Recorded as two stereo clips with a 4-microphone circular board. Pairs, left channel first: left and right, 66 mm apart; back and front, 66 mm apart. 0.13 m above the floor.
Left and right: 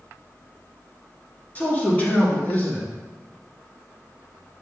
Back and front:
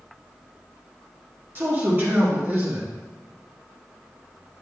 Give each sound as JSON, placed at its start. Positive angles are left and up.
{"t": 1.6, "sound": "a man speaking", "azimuth_deg": 35, "distance_m": 2.5}